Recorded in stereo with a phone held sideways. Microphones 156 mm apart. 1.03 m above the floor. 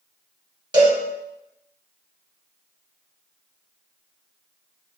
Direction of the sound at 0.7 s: 30° right (ahead or behind).